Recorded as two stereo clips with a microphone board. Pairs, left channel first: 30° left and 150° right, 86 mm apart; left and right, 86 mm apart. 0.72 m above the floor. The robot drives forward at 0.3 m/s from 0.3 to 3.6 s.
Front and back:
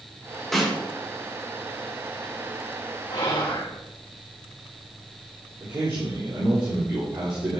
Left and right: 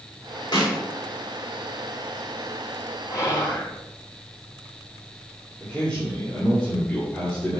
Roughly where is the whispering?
Ahead left.